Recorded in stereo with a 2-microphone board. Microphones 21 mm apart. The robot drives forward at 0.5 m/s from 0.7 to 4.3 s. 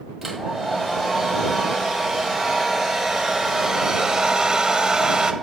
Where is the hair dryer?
10° right (ahead or behind), 2.5 m; by 5.3 s 40° right (ahead or behind), 0.7 m.